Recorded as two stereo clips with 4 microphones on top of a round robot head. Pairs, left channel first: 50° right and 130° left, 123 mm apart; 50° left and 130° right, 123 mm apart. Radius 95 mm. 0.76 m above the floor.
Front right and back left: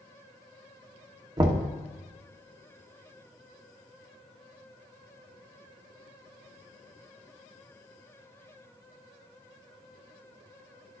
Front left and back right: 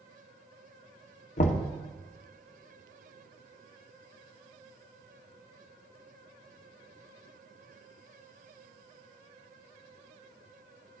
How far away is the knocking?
About 0.9 m.